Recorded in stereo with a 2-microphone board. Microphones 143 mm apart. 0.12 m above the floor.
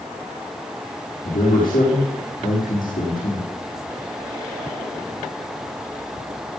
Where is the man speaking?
75° left (ahead or behind), 7 m.